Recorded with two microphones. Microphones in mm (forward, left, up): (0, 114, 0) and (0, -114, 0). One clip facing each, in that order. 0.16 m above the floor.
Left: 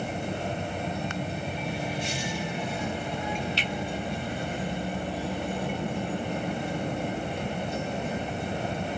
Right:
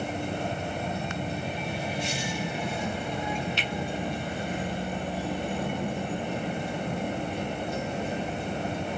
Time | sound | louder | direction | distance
3.6 | a finger snap | left 1 dB | 35° left (ahead or behind) | 1.1 m